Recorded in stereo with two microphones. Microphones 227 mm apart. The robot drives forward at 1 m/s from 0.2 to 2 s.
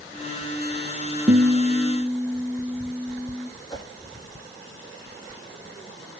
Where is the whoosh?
20° left (ahead or behind), 4.5 m.